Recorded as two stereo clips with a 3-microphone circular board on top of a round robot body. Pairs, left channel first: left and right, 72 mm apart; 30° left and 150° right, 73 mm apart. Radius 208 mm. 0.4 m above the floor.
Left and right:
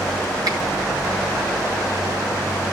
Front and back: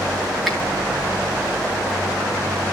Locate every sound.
0.5 s a finger snap: 60° right, 7 m